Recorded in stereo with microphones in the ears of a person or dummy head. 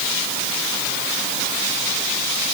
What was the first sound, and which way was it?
Only background noise.